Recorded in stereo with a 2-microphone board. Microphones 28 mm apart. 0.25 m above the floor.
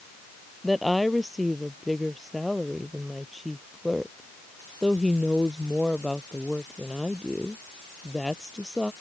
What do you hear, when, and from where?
0.6 s a woman speaking: centre (ahead or behind)